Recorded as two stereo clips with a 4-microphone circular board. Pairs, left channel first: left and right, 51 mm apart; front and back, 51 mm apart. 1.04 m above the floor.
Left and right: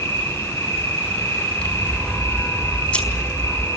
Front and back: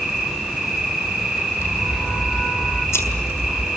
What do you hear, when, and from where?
0.0 s an insect: 95° left, 6 m
1.6 s scissors: 25° left, 4.5 m